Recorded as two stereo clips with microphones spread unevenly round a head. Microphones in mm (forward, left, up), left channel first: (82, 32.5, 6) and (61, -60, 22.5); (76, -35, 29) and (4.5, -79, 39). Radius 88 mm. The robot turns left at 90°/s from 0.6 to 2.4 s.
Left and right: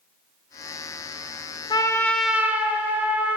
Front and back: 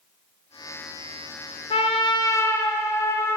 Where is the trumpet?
35° left, 1.0 m; by 3.4 s 30° right, 1.0 m.